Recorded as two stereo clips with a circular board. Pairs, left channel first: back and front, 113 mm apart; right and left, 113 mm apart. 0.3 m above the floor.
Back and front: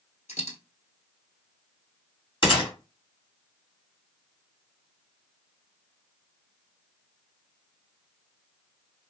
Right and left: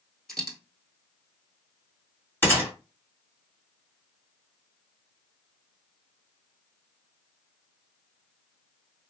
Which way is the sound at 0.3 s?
175° right.